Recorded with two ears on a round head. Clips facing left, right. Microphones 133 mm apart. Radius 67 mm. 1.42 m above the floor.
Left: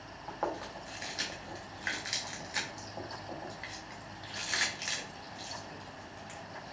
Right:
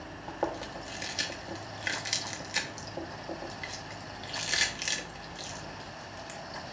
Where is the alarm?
No alarm in this recording.